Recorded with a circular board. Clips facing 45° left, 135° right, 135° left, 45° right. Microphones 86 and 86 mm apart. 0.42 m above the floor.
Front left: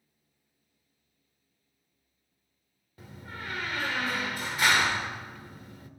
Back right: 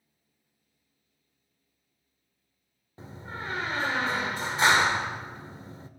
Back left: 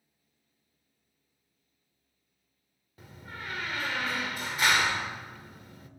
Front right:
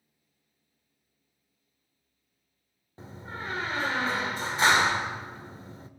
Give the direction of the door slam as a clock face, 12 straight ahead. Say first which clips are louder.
Back right 3 dB, front right 4 dB; 3 o'clock.